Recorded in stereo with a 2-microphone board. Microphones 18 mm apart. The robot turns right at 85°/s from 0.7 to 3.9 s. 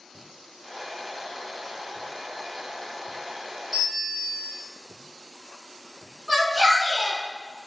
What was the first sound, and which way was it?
A bell, 15° right (ahead or behind).